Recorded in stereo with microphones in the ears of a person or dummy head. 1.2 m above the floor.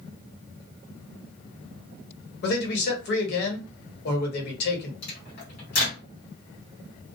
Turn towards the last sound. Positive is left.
turn(degrees=50)  # may be behind; listen again after turning